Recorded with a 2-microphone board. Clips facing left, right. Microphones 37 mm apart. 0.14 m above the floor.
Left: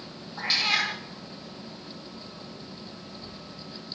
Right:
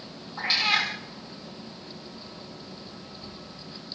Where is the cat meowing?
Centre (ahead or behind), 8.5 m.